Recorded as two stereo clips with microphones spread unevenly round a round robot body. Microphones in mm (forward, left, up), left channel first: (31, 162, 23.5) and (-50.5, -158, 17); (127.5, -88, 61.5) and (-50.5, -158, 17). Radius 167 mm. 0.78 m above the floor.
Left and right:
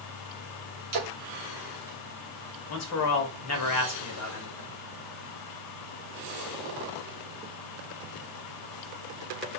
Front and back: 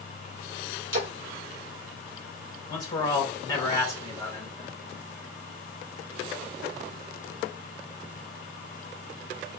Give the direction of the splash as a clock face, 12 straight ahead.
5 o'clock.